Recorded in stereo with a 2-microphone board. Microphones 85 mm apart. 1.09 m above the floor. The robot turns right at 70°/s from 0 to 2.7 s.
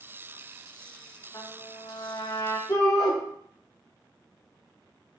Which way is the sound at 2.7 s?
45° left (ahead or behind).